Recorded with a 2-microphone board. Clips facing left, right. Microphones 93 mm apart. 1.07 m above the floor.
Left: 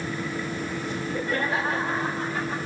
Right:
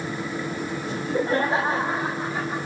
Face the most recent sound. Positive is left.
turn(degrees=-10)  # may be behind; listen again after turning